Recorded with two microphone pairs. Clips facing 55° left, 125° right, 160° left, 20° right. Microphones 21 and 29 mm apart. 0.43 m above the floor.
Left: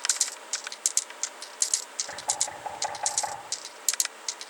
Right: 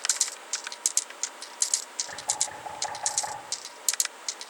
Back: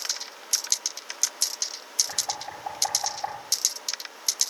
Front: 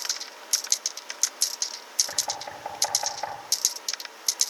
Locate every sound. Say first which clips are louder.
2.1 s knocking: left 1 dB, even; 25° right, 5.5 m